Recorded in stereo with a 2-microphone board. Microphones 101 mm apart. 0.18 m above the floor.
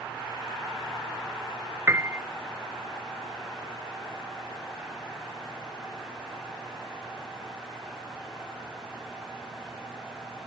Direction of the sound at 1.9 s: 25° right (ahead or behind).